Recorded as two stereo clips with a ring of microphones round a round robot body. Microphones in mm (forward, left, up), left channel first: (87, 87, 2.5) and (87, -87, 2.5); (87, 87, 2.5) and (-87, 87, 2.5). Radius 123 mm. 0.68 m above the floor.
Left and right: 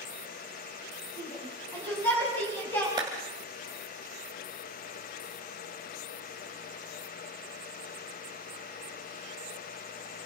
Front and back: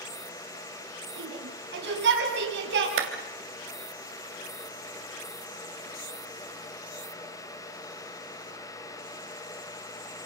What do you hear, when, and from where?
1.2 s a shout: 170° left, 5 m
3.0 s a clap: 165° right, 2.5 m